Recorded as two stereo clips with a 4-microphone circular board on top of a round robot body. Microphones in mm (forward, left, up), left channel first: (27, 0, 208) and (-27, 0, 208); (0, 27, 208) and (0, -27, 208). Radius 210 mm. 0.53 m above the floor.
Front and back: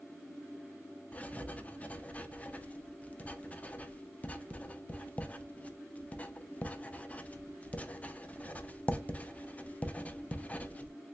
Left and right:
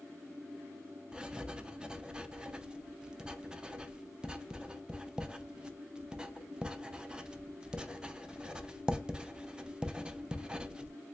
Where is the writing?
35° right, 0.7 m.